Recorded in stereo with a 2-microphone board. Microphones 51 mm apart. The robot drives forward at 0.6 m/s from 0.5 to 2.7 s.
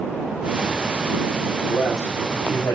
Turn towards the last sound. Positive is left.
turn(degrees=80)